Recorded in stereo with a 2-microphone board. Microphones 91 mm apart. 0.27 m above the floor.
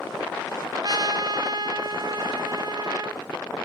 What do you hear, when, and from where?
0.8 s a trumpet: 50° right (ahead or behind), 0.6 m